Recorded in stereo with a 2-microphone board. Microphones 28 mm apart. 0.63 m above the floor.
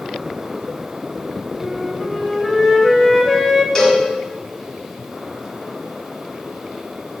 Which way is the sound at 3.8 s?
20° left (ahead or behind).